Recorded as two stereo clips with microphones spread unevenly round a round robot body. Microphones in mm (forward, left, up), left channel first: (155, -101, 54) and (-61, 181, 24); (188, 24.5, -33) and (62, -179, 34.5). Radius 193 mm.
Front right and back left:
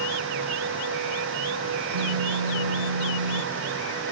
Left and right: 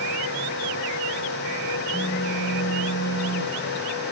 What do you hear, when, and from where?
1.9 s a phone buzzing: 140° left, 1.0 m